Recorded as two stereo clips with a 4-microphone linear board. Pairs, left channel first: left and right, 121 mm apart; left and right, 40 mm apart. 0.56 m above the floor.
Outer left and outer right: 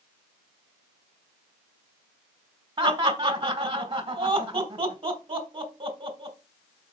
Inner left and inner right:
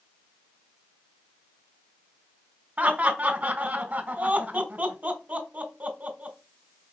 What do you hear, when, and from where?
2.8 s laughter: 45° right (ahead or behind), 2.5 m